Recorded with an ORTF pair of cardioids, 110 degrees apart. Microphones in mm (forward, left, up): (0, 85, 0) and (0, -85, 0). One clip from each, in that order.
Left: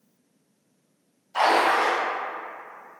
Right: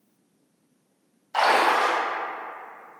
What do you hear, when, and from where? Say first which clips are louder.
1.3 s a splash: even; 55° right, 1.7 m